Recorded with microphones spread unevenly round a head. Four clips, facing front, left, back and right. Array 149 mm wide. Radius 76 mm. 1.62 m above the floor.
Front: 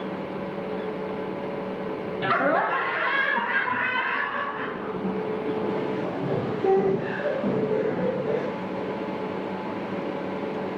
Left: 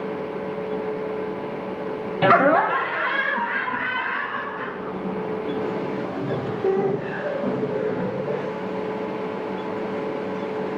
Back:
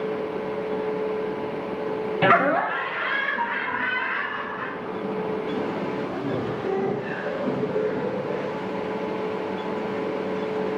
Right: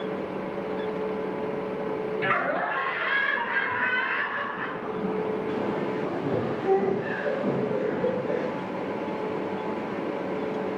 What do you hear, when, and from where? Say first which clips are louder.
2.2 s laughter: left 13 dB, back 3 dB; 130° left, 0.6 m; by 8.4 s 30° left, 9.5 m